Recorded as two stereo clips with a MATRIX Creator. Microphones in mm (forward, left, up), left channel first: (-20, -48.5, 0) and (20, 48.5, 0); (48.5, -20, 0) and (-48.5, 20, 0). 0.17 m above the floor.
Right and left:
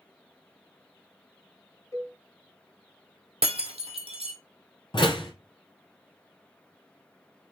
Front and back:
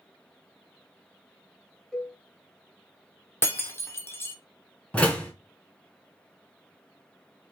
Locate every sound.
1.9 s a cowbell: 100° right, 0.8 m
3.4 s breaking glass: 45° left, 1.0 m
4.9 s a door slam: 100° right, 1.1 m